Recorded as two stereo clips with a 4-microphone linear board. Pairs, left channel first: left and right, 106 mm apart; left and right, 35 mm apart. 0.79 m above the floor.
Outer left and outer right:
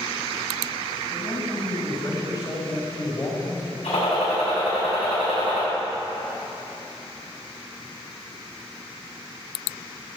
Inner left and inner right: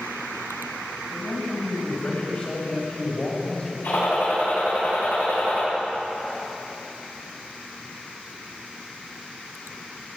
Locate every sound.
1.1 s a man speaking: 45° left (ahead or behind), 5 m; by 3.7 s 25° left (ahead or behind), 4.5 m
3.8 s a gunshot: 85° left, 7 m